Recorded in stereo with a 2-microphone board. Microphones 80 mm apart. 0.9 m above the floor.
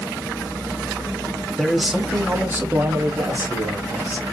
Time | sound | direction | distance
1.6 | a man speaking | centre (ahead or behind) | 1.6 m